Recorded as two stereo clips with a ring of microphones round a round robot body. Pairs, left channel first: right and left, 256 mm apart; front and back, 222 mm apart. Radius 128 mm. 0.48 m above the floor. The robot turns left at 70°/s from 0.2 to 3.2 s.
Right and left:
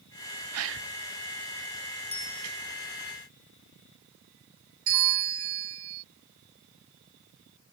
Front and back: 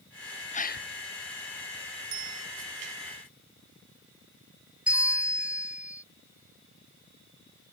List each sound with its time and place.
0.5 s a gasp: 60° left; by 0.9 s 35° left
2.1 s a bicycle bell: 160° right; by 2.5 s straight behind
4.9 s a bell: 95° left